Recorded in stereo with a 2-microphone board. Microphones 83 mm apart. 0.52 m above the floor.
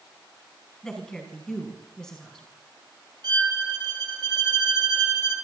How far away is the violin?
About 2.5 m.